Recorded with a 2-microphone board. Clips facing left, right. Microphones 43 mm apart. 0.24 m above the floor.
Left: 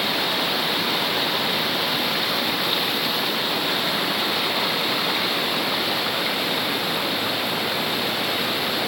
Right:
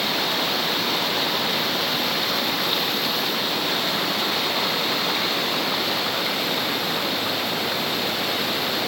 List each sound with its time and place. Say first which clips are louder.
0.0 s running water: even; 10° left (ahead or behind)